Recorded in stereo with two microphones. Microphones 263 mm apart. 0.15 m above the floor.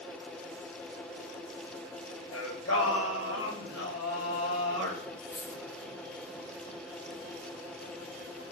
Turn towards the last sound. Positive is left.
turn(degrees=25)  # may be behind; listen again after turning